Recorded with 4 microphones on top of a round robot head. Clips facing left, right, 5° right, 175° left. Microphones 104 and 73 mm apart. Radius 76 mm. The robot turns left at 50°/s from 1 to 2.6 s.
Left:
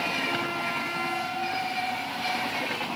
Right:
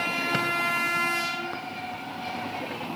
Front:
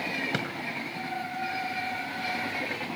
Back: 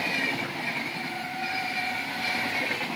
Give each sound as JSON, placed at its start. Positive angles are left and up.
{"t": 0.3, "sound": "a drawer", "azimuth_deg": -30, "distance_m": 3.0}